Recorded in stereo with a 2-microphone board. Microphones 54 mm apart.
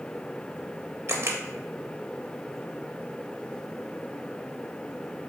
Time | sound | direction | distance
1.1 | a camera shutter | 50° right (ahead or behind) | 0.6 m